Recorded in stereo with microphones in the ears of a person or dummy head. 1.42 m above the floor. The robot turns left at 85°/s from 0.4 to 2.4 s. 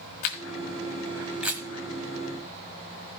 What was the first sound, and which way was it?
A camera shutter, 40° left (ahead or behind).